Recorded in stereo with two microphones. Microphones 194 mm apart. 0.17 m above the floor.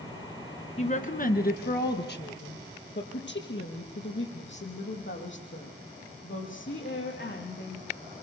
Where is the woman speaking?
35° left (ahead or behind), 1.9 m; by 8.0 s 80° left, 10 m.